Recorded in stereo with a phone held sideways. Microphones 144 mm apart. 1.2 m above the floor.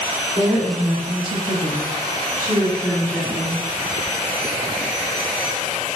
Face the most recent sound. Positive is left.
turn(degrees=-5)  # may be behind; listen again after turning